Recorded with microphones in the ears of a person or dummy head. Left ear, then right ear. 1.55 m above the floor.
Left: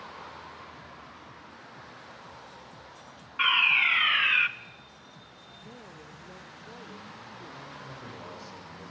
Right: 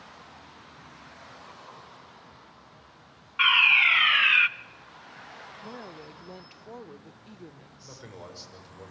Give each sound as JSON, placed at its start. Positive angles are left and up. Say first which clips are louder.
{"t": 3.4, "sound": "a fire alarm", "louder": "right 4 dB", "side_deg": -10, "distance_m": 0.6}
{"t": 5.6, "sound": "a woman speaking", "louder": "right 4 dB", "side_deg": -75, "distance_m": 0.6}
{"t": 7.8, "sound": "a man speaking", "louder": "left 2 dB", "side_deg": -70, "distance_m": 7.5}